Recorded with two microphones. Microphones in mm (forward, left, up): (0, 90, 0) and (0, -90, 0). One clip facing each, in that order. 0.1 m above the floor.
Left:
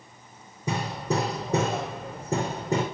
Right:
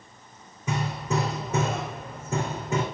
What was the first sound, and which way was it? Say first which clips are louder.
Hammering: left 1 dB; 35° left (ahead or behind).